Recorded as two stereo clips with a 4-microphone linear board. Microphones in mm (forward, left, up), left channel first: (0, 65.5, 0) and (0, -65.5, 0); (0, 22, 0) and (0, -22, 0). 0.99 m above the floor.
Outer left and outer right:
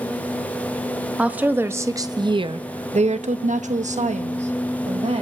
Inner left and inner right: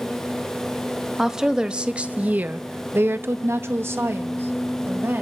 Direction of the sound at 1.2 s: 10° right (ahead or behind).